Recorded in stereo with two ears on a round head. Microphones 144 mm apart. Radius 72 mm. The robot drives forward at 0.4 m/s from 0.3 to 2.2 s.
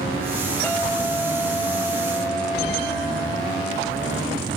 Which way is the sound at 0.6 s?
5° left (ahead or behind).